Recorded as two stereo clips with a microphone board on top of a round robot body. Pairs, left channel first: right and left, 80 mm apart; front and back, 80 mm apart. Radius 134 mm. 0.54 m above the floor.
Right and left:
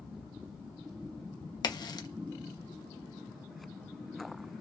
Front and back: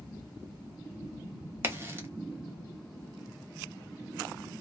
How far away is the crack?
About 0.8 m.